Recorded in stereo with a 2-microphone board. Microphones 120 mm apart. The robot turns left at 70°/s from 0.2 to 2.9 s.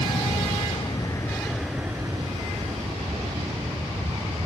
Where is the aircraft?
65° left (ahead or behind); by 4.5 s 60° right (ahead or behind).